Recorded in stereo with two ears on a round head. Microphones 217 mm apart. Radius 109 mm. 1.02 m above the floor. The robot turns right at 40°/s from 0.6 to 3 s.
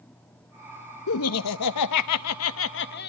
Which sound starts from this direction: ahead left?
Laughter, at 1.1 s.